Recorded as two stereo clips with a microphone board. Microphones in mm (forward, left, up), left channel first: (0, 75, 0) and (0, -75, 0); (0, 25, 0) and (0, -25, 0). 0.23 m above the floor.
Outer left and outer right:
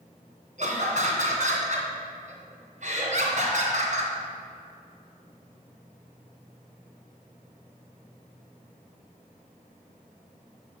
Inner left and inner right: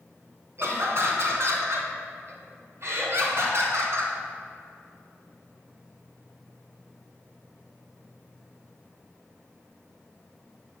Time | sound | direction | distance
0.6 | laughter | 55° right (ahead or behind) | 2.5 m